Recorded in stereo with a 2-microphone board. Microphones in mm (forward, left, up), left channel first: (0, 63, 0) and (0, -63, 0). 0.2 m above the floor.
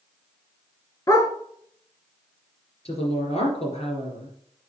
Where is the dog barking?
25° left (ahead or behind), 1.0 m.